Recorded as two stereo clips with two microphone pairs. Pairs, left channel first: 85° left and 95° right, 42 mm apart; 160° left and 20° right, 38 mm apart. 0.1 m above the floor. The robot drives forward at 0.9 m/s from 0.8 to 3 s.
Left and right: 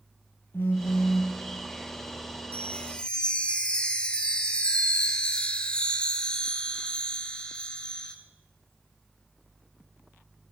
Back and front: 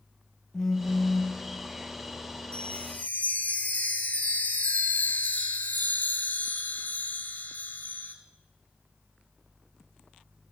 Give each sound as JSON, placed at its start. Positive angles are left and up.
{"t": 0.5, "sound": "a phone buzzing", "azimuth_deg": 80, "distance_m": 2.0}
{"t": 2.5, "sound": "a chime", "azimuth_deg": 115, "distance_m": 1.0}